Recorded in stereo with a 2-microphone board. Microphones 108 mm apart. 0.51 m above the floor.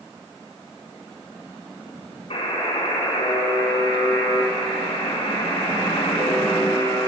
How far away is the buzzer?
About 4.5 m.